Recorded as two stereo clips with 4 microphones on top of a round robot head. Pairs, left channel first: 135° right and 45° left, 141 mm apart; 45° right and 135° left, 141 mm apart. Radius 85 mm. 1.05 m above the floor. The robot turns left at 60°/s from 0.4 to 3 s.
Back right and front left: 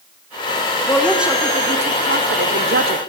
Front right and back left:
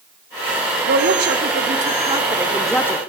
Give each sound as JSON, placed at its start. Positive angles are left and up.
{"t": 0.9, "sound": "a woman speaking", "azimuth_deg": 150, "distance_m": 3.0}